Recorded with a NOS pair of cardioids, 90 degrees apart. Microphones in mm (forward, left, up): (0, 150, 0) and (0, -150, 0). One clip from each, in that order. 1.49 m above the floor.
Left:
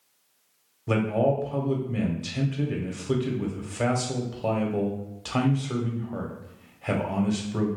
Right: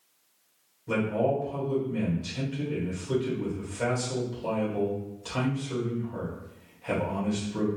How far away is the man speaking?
About 1.2 m.